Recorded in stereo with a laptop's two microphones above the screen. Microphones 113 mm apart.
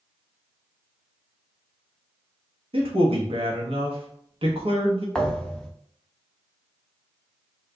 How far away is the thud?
About 0.5 m.